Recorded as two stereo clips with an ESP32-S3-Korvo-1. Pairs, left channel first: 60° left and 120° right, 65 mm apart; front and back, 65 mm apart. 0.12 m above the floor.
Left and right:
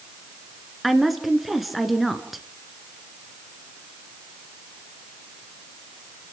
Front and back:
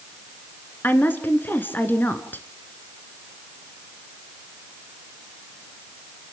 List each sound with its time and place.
0.8 s a woman speaking: 35° right, 1.6 m